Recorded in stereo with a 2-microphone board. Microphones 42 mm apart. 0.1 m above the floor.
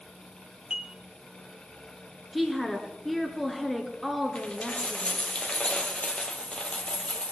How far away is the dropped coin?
About 1.4 m.